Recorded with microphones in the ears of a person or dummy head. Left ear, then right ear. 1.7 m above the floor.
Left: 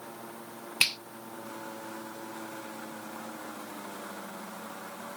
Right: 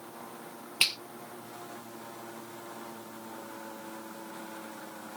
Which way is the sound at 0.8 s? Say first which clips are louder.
Left 1 dB; 10° left (ahead or behind).